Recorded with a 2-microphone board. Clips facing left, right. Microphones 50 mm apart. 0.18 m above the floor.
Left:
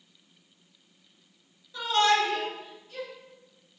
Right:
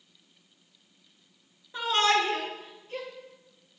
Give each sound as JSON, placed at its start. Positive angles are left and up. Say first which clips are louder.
{"t": 1.7, "sound": "a shout", "louder": "left 1 dB", "side_deg": -30, "distance_m": 2.5}